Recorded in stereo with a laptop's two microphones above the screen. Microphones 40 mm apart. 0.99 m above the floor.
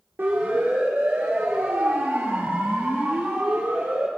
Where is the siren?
65° right (ahead or behind), 4 m.